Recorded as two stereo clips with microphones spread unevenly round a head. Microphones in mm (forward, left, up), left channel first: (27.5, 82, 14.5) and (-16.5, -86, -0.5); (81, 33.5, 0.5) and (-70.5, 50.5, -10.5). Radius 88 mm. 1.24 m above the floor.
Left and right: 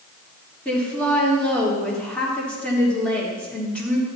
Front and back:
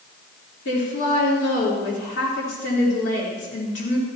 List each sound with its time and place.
0.7 s a woman speaking: 10° right, 3.5 m